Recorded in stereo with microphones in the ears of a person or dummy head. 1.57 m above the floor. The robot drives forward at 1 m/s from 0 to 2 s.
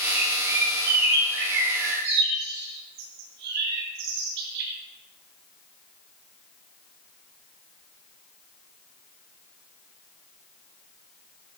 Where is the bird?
75° right (ahead or behind), 5.5 m; by 4.7 s 65° right (ahead or behind), 6 m.